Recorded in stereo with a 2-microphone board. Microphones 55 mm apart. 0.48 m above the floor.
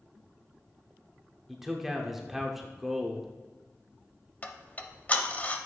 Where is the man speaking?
5° right (ahead or behind), 0.8 m.